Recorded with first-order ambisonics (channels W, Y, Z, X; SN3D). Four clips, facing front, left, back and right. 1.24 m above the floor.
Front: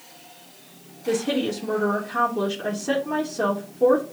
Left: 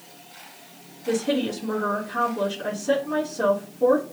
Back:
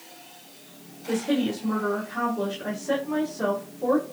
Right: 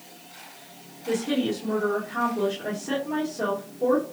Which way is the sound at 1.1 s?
Straight ahead.